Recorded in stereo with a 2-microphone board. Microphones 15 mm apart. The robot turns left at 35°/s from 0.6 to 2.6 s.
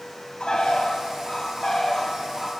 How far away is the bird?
About 1.7 m.